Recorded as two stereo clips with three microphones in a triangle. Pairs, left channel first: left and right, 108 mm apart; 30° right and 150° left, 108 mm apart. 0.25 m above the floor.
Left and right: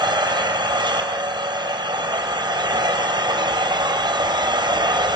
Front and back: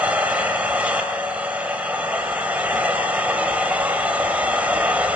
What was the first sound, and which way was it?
An engine running, 135° right.